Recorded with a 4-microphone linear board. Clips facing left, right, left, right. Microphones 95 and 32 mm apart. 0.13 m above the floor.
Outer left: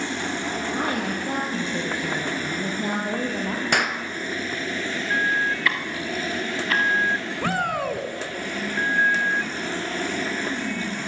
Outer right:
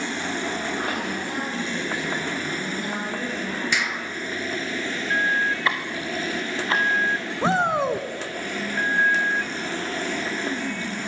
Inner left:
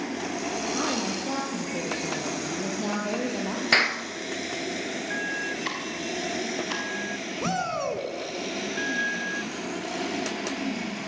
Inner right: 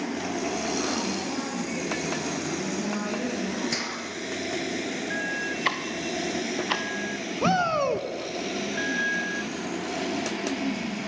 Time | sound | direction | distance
0.7 | a woman speaking | 30° left (ahead or behind) | 4.5 m
3.7 | a clap | 55° left (ahead or behind) | 1.8 m
5.7 | ticking | 25° right (ahead or behind) | 4 m
7.4 | a shout | 25° right (ahead or behind) | 1.3 m